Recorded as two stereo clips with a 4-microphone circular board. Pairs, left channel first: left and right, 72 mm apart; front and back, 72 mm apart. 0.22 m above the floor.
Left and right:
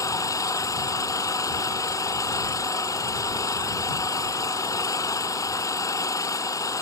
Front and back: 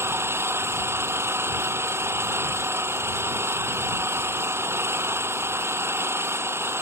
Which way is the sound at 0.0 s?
130° left.